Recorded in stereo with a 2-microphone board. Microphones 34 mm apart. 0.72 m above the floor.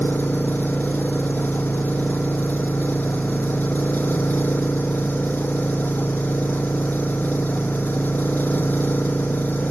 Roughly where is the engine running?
Left.